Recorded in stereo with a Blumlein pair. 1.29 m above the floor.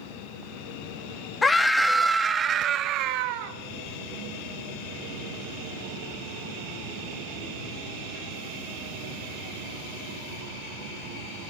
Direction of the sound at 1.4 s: 15° left.